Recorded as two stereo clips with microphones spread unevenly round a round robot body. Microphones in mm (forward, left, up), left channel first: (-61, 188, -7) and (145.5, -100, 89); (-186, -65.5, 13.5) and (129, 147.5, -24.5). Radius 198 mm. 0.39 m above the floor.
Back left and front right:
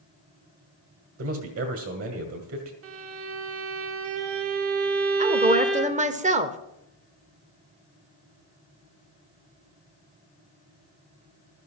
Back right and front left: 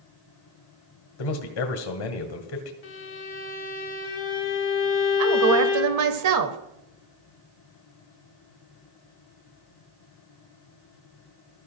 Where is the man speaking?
115° right, 1.6 m.